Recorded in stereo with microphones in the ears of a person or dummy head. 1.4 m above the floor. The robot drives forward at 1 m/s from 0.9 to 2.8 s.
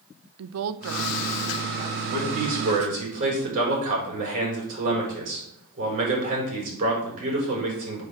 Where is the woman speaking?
75° right (ahead or behind), 0.7 m; by 2.0 s 30° right (ahead or behind), 1.3 m.